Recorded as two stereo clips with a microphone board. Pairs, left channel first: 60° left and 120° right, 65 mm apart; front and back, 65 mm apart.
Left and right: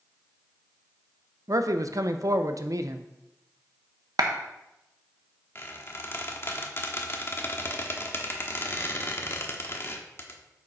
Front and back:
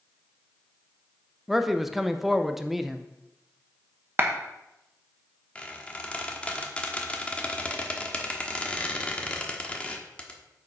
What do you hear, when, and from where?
1.5 s a man speaking: 90° right, 0.7 m
4.2 s a clap: 120° right, 1.1 m
5.5 s a squeak: 60° left, 1.1 m